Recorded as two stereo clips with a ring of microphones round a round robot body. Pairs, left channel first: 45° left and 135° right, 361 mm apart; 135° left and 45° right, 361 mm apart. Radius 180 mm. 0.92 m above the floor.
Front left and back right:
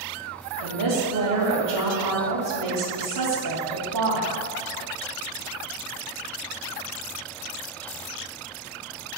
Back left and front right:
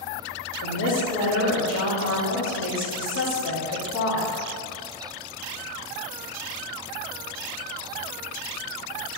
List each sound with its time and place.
0.6 s a woman speaking: 170° right, 2 m